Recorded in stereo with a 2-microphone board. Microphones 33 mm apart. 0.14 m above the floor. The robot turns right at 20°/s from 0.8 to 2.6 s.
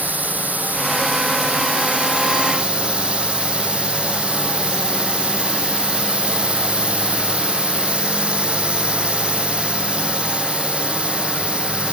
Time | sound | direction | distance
0.0 | a drone | 75° right | ?